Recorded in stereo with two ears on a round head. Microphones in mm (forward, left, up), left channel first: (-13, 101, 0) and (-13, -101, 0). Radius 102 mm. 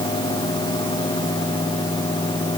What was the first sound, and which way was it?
Only background noise.